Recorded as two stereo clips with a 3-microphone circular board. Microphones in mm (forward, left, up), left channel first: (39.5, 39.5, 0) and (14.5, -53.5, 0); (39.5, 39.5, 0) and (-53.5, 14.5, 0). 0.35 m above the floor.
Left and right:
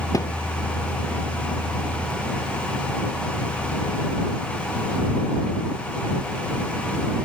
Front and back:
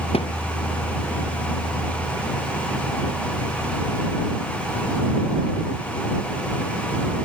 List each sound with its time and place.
0.1 s a thud: 20° left